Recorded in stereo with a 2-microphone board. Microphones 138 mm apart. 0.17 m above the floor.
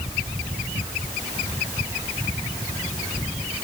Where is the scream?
No scream in this recording.